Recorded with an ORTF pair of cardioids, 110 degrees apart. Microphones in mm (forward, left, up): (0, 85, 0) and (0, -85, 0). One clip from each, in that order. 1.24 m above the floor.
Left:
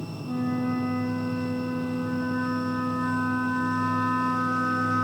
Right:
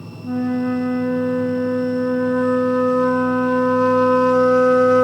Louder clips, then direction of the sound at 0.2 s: Right 7 dB; 60° right.